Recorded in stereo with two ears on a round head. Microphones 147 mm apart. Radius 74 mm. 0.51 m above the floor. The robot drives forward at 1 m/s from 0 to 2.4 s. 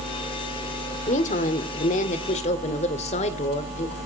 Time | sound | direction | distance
1.1 | a woman speaking | 45° left (ahead or behind) | 1.8 m